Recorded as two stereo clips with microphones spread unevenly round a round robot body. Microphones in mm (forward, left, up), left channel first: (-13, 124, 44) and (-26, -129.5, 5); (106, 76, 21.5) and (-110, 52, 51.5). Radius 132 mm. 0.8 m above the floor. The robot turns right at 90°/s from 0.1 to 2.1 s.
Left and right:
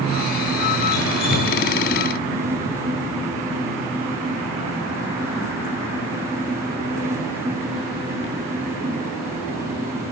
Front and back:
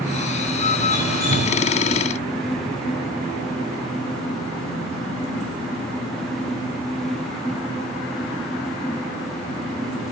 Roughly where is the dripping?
Left.